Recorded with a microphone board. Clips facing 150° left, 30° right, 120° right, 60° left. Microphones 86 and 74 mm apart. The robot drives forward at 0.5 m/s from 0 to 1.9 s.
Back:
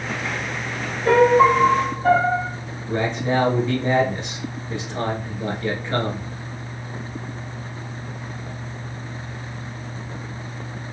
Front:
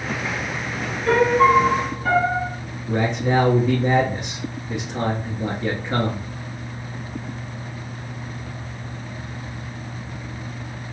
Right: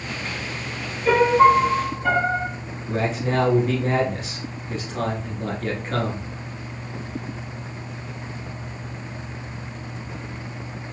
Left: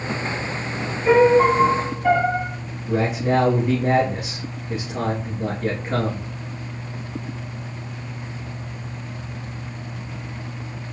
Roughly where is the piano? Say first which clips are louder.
Back 2 dB, left 1 dB; behind left.